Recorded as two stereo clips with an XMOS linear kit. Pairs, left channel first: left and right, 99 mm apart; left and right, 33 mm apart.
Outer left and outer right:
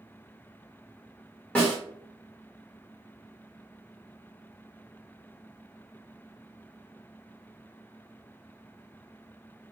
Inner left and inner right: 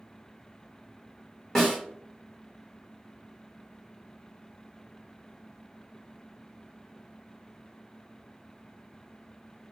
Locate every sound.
1.6 s a snare drum: 10° left (ahead or behind), 1.1 m